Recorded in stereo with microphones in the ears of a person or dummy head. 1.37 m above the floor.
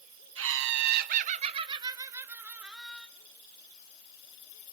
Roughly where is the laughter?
Right.